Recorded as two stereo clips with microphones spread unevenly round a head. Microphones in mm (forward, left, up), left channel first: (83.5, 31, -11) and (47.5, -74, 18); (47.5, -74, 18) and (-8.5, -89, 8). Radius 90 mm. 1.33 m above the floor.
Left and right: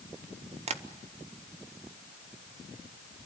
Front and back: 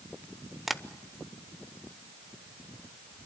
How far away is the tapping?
About 0.9 m.